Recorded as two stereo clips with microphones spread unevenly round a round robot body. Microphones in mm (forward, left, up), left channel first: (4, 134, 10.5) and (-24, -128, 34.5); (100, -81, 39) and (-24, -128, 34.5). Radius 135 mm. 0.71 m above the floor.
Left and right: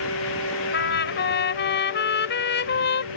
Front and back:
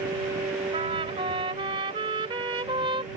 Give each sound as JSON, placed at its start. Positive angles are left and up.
{"t": 0.7, "sound": "a trumpet", "azimuth_deg": 135}